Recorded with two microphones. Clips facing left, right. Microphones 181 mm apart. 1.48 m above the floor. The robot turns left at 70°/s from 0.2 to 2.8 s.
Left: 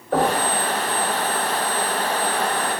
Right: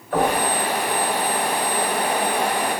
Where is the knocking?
60° left (ahead or behind), 2.0 m; by 0.4 s 45° left (ahead or behind), 2.0 m.